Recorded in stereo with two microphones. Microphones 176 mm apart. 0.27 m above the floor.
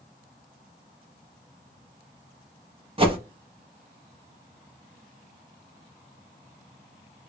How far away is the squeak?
No squeak in this recording.